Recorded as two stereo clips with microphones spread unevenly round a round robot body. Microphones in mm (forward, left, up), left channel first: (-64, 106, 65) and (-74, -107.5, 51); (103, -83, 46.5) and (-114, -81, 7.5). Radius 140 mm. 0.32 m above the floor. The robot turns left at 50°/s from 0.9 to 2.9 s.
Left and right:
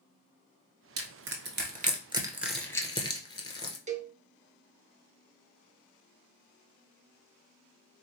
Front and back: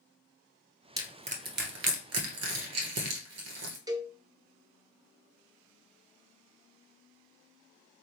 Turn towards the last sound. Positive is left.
turn(degrees=-125)